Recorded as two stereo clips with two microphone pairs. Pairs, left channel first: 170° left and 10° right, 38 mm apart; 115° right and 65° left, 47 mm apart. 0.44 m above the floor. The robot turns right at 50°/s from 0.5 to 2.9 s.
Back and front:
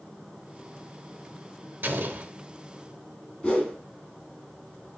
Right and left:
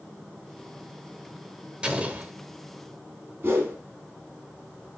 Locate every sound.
1.8 s an explosion: 5° left, 0.7 m; by 2.3 s 30° left, 0.7 m
3.4 s a whoosh: 110° left, 1.6 m